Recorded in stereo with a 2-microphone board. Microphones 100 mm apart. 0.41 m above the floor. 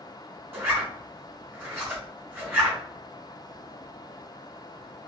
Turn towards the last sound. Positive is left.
turn(degrees=-20)  # may be behind; listen again after turning